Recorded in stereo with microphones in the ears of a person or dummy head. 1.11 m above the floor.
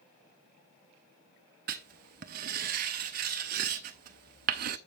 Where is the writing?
40° right (ahead or behind), 0.5 m.